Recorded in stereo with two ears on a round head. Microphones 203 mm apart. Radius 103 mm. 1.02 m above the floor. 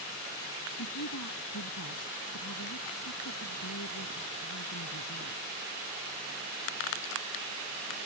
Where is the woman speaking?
80° left; by 5.7 s 90° left.